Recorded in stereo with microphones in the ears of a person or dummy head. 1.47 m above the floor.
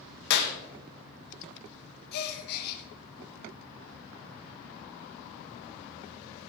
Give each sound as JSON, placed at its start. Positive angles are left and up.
{"t": 0.3, "sound": "a clap", "side_deg": 65, "distance_m": 1.4}
{"t": 2.1, "sound": "a gasp", "side_deg": 55, "distance_m": 1.7}